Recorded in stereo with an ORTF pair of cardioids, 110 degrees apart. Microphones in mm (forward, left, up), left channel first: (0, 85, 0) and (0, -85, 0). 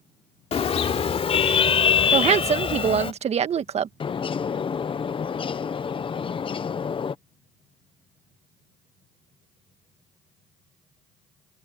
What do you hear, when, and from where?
0.5 s a car horn: 40° left; by 3.1 s 35° left
2.1 s a woman speaking: 45° right
4.0 s a bird: 35° left